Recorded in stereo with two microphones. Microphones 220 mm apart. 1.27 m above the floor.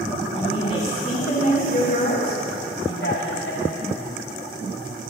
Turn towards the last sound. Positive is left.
turn(degrees=70)  # may be behind; listen again after turning